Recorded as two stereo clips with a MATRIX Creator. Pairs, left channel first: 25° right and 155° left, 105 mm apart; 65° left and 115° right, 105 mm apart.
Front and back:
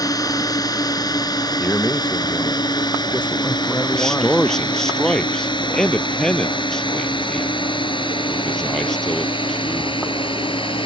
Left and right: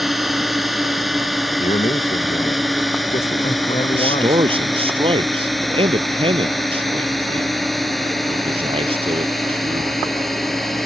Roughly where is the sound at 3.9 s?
Right.